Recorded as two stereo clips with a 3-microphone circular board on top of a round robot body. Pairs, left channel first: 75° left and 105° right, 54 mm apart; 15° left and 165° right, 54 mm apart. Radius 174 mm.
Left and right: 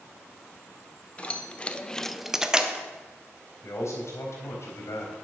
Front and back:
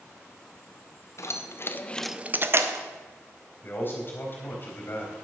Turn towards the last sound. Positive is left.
turn(degrees=60)